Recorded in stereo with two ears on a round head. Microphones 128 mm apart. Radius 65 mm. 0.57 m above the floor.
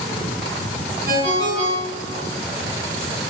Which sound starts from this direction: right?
A ringtone, at 1.1 s.